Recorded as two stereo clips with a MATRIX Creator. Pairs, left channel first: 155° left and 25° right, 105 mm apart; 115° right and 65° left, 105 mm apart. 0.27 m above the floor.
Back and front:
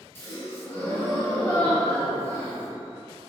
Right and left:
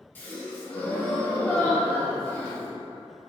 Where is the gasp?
165° right, 0.6 m.